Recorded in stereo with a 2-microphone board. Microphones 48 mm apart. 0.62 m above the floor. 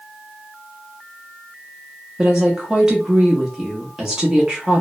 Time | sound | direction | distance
2.2 | a woman speaking | 15° right (ahead or behind) | 0.7 m